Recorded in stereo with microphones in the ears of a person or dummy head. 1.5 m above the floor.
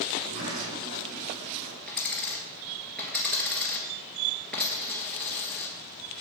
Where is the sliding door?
75° right (ahead or behind), 3.5 m.